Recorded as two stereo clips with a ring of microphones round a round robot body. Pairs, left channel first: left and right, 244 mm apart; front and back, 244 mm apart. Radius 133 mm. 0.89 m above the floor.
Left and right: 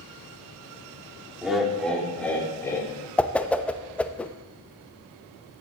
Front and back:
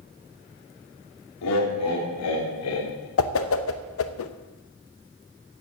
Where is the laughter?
5° right, 3 m; by 3.1 s 15° left, 3.5 m.